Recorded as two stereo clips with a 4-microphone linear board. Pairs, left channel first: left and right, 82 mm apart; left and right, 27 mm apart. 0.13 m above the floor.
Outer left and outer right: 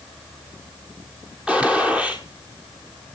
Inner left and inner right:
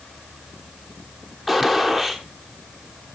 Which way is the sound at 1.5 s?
15° right (ahead or behind).